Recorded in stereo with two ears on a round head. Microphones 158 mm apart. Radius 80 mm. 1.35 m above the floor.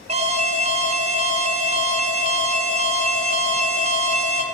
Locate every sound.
0.1 s an alarm: 40° right (ahead or behind), 2 m